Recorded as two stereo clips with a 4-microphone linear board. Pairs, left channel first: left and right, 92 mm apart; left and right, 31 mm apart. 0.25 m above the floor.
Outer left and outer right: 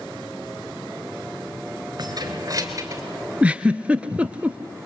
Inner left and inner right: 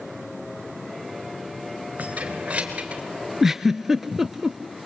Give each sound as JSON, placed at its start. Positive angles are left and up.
{"t": 2.0, "sound": "keys jangling", "side_deg": -45, "distance_m": 3.0}
{"t": 3.4, "sound": "a giggle", "side_deg": -15, "distance_m": 0.7}